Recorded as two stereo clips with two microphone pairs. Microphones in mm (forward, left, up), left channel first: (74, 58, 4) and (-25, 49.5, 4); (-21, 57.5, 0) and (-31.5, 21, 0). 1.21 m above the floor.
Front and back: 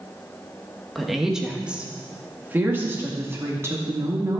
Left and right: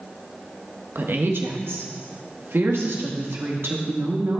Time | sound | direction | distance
0.9 | a woman speaking | 85° right | 1.5 m